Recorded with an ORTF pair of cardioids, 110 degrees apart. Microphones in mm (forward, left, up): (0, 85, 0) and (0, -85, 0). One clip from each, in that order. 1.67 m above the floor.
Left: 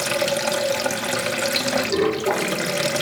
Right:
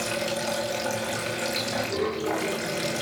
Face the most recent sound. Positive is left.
turn(degrees=50)